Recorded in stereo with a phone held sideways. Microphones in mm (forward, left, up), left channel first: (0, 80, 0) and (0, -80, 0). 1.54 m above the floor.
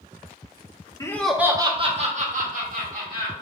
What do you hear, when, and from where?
1.0 s laughter: 20° left (ahead or behind), 0.7 m; by 3.3 s 65° right (ahead or behind), 1.9 m